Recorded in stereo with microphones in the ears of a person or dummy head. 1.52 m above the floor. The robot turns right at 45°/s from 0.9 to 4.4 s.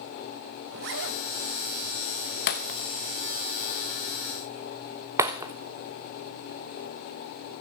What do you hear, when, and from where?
0.7 s a zipper: 70° right (ahead or behind), 1.4 m; by 1.2 s 80° right, 1.4 m
2.5 s breaking glass: 40° left (ahead or behind), 0.9 m; by 5.5 s 15° right (ahead or behind), 0.9 m